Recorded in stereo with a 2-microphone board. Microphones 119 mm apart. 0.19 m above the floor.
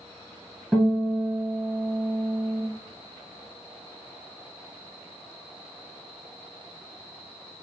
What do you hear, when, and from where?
0.7 s a guitar: 5° left (ahead or behind), 1.8 m